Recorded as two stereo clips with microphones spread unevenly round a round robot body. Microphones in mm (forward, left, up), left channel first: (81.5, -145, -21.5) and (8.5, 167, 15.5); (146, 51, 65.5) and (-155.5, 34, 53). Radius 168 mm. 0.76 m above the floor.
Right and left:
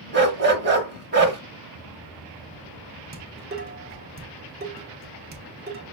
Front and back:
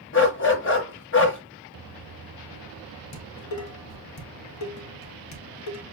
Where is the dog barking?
50° left, 1.0 m.